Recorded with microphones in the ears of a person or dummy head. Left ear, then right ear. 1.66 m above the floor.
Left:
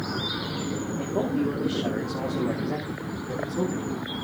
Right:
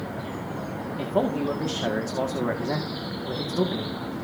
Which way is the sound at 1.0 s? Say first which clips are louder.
Right 3 dB; 70° right (ahead or behind).